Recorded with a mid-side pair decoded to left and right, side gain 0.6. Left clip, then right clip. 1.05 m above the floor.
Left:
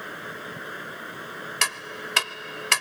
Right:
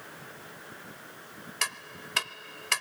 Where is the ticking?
30° left.